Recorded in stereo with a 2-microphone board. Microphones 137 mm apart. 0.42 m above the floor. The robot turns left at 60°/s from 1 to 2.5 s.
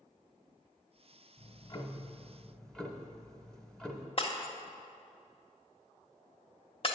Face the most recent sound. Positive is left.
turn(degrees=45)  # may be behind; listen again after turning